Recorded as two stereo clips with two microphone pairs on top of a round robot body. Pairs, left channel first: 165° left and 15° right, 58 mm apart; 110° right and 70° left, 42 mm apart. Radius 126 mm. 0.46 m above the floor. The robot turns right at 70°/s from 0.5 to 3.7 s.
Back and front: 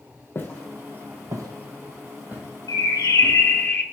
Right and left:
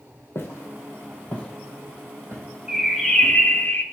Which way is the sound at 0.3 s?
145° right.